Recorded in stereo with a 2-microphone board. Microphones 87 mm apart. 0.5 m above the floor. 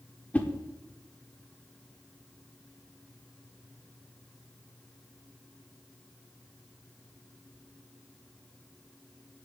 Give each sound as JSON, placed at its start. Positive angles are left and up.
{"t": 0.3, "sound": "a whoosh", "side_deg": 15, "distance_m": 1.2}